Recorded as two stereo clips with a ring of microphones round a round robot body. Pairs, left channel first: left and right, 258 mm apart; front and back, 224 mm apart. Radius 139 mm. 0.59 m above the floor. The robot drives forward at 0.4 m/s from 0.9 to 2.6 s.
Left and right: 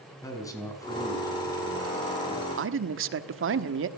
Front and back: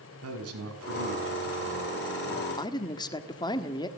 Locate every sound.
0.2 s a man speaking: 165° left, 5 m; by 2.5 s 170° left, 6 m
2.6 s a man speaking: 70° right, 1.3 m